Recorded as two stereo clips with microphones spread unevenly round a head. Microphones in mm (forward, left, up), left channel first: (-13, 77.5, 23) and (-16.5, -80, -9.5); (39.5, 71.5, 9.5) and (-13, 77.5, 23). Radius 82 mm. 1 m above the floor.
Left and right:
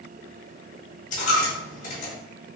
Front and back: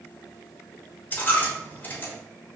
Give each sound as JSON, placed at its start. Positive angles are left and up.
{"t": 1.1, "sound": "a dropped coin", "azimuth_deg": 50, "distance_m": 1.3}